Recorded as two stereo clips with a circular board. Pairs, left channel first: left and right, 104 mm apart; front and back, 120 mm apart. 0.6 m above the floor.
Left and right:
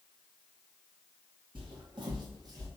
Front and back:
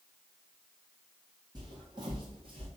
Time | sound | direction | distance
1.6 | footsteps | 125° right | 2.0 m